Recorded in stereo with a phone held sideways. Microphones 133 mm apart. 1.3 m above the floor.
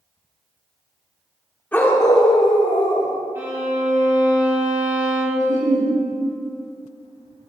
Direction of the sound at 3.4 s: 20° right (ahead or behind).